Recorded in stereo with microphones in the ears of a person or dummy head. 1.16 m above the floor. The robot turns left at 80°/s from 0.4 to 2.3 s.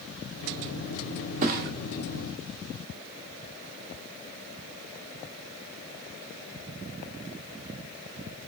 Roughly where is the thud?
Right.